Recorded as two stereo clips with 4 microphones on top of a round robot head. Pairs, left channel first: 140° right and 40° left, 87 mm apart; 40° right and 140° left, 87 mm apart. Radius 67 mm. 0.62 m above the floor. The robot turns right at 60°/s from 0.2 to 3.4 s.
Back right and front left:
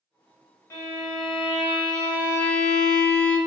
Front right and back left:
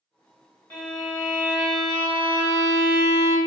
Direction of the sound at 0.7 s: 90° right.